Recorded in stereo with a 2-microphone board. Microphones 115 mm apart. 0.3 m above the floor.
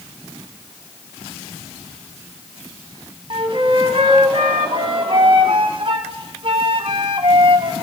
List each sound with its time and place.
3.3 s a flute: 50° right (ahead or behind), 2.5 m